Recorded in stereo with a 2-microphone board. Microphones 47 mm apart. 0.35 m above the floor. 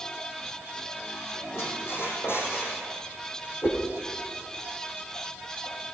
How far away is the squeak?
About 6.5 m.